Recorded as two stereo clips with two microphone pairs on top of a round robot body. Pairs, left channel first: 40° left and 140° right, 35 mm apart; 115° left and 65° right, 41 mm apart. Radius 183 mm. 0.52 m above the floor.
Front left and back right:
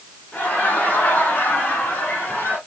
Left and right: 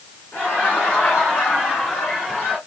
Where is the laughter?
70° left, 2.5 m; by 2.6 s 35° left, 4.5 m.